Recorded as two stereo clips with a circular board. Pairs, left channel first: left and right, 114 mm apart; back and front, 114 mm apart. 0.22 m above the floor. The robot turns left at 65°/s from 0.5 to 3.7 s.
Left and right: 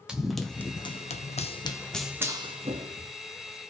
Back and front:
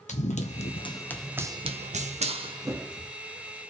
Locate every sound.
0.1 s running footsteps: 175° right, 0.9 m; by 3.1 s 95° right, 1.2 m